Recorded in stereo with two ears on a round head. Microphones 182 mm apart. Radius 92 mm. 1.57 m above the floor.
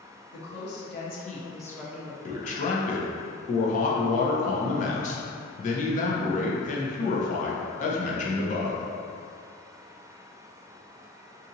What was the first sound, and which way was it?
A woman speaking, 65° left (ahead or behind).